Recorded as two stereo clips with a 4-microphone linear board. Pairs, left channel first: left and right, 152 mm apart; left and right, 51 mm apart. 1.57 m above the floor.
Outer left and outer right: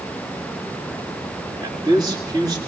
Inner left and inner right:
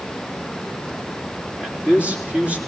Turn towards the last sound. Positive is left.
turn(degrees=-30)  # may be behind; listen again after turning